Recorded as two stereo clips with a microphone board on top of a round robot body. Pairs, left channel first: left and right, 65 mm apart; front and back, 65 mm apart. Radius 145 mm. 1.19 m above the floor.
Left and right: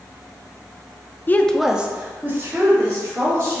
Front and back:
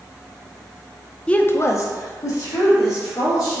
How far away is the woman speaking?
About 0.5 m.